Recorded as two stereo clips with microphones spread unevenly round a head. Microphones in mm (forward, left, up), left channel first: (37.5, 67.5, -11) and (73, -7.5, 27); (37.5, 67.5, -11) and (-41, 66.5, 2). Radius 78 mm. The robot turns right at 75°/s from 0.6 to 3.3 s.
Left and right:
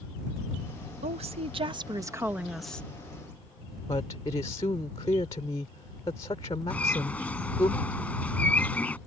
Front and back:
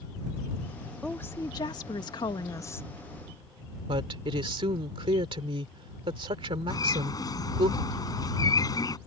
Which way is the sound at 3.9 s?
175° left.